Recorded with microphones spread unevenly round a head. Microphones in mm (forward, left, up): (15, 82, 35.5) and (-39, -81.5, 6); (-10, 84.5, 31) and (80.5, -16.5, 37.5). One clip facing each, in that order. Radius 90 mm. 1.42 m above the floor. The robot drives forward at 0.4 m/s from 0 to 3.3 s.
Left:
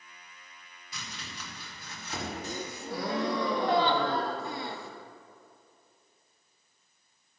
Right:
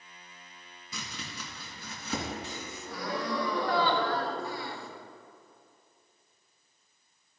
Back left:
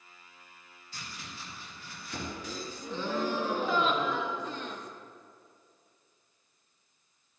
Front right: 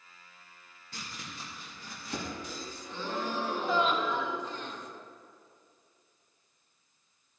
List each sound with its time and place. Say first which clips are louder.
0.9 s chopping: right 3 dB, front right 1 dB; 100° right, 1.8 m; by 2.3 s 115° right, 2 m
2.4 s a gasp: left 4 dB, back left 3 dB; 125° left, 0.8 m; by 4.9 s 140° left, 1.0 m